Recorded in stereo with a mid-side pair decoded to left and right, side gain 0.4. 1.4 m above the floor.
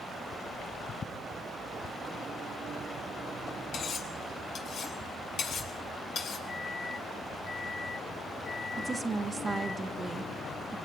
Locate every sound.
3.7 s cutlery clinking: 65° left, 4.5 m
6.5 s a microwave: 30° left, 5 m
8.8 s a woman speaking: 35° right, 1.9 m